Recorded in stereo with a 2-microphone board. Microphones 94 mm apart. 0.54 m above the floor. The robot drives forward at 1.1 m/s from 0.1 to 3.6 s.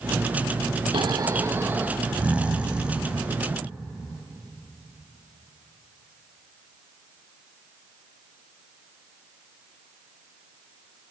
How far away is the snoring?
About 0.5 m.